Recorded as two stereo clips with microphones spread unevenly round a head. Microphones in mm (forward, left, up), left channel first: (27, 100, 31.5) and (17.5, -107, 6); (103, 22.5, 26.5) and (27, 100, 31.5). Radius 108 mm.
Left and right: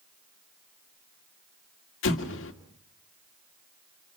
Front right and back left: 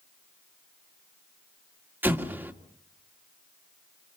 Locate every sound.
2.0 s an explosion: 60° left, 2 m